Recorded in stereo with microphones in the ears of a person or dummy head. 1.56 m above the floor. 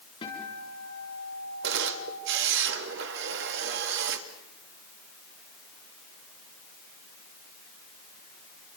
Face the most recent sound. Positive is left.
turn(degrees=-70)  # may be behind; listen again after turning